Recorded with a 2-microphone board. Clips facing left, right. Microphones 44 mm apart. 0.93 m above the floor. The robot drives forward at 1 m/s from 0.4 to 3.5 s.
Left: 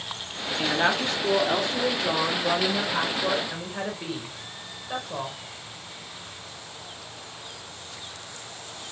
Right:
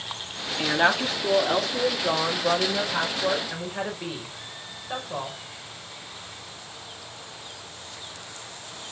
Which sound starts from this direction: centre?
A woman speaking, at 0.6 s.